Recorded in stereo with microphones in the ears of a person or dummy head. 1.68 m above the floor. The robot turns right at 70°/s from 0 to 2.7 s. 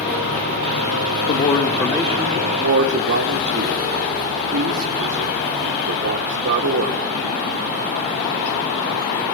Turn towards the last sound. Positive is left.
turn(degrees=-125)